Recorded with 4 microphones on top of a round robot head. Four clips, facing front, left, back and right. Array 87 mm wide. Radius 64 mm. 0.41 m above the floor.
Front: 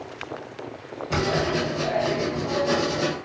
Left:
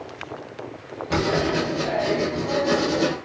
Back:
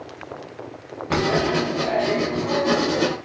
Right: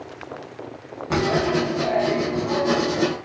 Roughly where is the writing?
Behind right.